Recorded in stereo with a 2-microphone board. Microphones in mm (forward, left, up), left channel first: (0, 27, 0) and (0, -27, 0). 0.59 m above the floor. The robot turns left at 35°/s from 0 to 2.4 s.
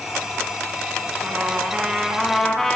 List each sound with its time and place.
1.2 s a trumpet: 145° right, 2.5 m; by 2.8 s 175° left, 2.5 m